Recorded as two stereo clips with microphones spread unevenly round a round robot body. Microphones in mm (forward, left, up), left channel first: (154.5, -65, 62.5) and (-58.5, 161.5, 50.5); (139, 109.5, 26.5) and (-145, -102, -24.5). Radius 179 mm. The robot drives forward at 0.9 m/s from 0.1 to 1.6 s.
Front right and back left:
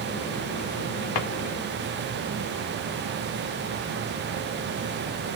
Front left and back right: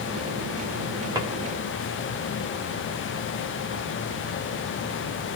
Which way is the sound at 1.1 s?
65° right.